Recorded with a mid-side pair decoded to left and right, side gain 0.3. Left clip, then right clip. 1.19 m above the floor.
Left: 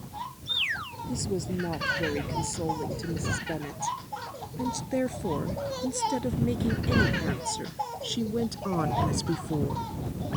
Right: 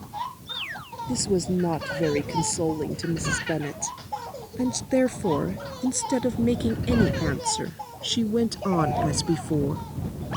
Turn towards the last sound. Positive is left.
turn(degrees=-55)